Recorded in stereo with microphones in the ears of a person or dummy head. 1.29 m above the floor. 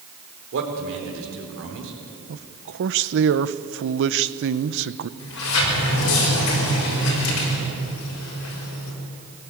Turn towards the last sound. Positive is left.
turn(degrees=80)